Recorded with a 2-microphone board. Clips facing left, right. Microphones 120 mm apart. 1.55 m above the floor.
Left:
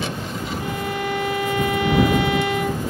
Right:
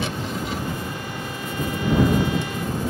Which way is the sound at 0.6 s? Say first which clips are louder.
Left 4 dB; 80° left.